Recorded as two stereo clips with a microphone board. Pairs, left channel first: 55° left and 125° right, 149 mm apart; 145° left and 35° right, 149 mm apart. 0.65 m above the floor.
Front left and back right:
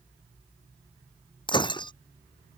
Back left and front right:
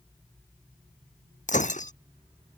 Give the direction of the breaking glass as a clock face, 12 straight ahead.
8 o'clock.